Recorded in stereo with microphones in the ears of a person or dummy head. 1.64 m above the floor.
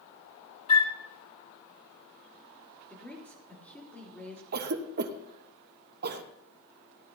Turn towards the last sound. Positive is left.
turn(degrees=-50)  # may be behind; listen again after turning